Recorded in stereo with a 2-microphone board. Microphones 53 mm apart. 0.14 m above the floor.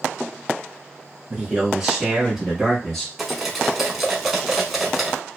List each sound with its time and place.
1.3 s a man speaking: 15° right (ahead or behind), 1.7 m; by 3.1 s 10° left (ahead or behind), 1.2 m
3.2 s cutlery clinking: 5° right (ahead or behind), 0.7 m